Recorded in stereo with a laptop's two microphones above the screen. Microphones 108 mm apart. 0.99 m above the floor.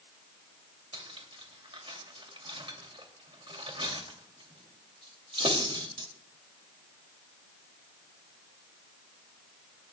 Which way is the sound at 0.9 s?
55° right (ahead or behind).